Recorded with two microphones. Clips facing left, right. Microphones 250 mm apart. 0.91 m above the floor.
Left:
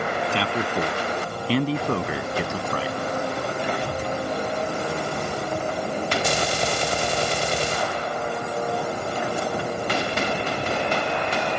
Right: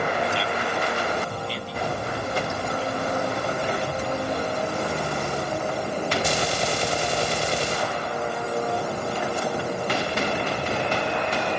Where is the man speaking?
70° left (ahead or behind); by 3.0 s 85° left.